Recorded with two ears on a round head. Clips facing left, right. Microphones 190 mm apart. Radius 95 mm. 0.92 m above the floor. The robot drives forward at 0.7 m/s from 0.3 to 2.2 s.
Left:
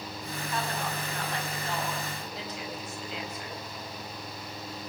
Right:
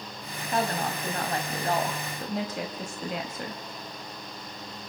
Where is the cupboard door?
I don't hear a cupboard door.